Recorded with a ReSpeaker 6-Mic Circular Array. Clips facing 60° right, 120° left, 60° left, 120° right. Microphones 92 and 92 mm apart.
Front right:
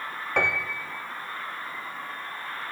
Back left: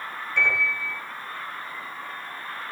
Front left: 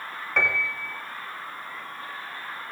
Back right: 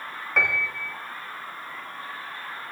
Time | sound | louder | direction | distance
0.4 | a piano | back left 1 dB, even | 30° right | 5.5 m